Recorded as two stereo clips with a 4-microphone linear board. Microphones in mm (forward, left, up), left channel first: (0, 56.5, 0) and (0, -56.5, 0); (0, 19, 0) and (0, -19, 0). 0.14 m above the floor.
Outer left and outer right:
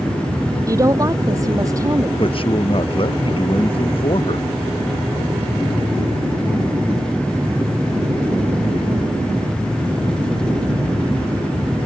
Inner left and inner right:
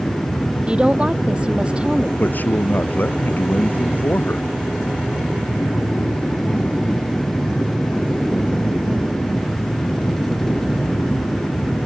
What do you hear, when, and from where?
0.7 s a woman speaking: 30° right (ahead or behind)
2.2 s a man speaking: 55° left (ahead or behind)